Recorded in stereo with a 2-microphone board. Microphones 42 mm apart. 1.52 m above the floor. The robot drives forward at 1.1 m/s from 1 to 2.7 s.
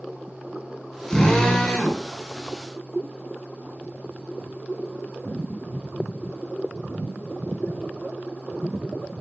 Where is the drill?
10° left (ahead or behind), 7.5 m; by 2.0 s 15° left (ahead or behind), 6.5 m.